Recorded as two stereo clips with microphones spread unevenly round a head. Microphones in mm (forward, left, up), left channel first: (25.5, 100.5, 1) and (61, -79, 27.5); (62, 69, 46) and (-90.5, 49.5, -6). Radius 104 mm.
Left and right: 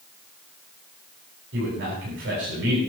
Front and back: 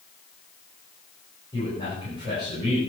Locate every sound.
1.5 s a man speaking: 60° right, 9.5 m